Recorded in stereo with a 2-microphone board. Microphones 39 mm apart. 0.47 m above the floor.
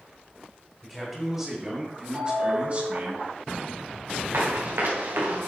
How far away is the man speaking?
About 2.5 m.